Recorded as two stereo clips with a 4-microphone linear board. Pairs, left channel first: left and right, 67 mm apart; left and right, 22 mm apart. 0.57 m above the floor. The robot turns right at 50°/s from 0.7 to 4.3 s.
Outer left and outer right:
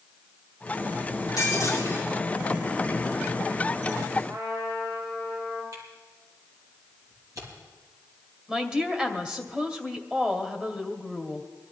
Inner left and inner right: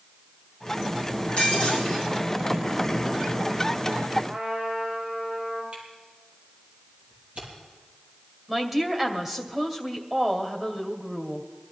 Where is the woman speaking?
15° right (ahead or behind), 2 m.